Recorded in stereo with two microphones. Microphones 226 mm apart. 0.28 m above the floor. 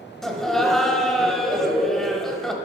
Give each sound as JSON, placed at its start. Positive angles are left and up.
{"t": 0.2, "sound": "laughter", "side_deg": 0, "distance_m": 1.1}